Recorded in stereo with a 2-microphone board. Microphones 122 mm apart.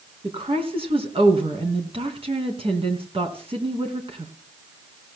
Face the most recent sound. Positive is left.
turn(degrees=-50)  # may be behind; listen again after turning